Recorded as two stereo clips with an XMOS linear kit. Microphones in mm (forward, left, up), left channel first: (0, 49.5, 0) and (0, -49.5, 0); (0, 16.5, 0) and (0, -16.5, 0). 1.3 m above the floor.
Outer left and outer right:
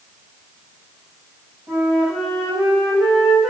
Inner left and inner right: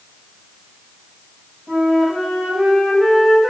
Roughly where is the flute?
Centre.